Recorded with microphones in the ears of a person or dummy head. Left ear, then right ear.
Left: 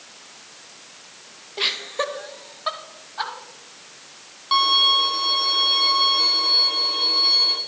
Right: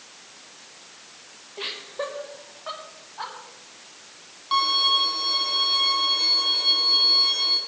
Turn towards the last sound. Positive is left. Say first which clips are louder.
# left 4 dB
turn(degrees=10)  # may be behind; listen again after turning